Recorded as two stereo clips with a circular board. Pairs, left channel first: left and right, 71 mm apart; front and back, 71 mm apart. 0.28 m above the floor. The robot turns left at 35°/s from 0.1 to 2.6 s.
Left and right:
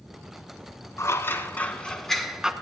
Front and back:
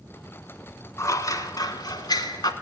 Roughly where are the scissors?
Ahead left.